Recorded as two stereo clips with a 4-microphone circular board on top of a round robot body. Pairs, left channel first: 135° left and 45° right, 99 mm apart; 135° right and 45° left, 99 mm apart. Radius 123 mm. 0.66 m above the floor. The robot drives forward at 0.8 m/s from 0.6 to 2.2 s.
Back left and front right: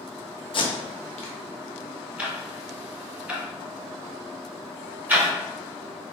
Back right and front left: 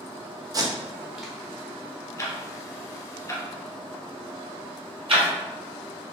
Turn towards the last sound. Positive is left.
turn(degrees=25)